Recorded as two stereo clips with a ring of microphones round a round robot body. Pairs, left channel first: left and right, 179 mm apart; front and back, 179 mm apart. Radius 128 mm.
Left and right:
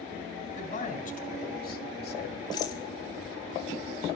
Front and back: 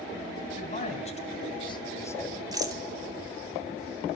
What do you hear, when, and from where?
0.5 s a man speaking: 45° left, 3 m; by 2.4 s 85° left, 1.5 m
2.5 s a rattle: 135° left, 1.2 m